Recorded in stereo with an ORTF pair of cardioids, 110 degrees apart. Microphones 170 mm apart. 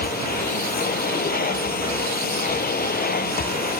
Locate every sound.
0.0 s a machine running: 65° left